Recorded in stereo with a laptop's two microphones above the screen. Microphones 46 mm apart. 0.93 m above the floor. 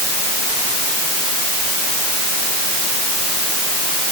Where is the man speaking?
I don't hear a man speaking.